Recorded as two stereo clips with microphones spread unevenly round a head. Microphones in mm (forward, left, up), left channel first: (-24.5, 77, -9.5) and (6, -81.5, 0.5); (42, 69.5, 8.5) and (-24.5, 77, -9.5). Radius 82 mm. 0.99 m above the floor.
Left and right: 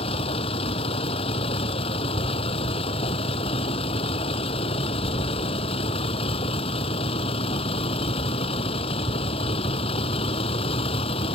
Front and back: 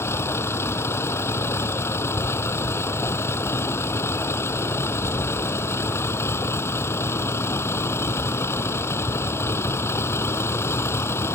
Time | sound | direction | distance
0.0 | a vehicle | 40° left | ?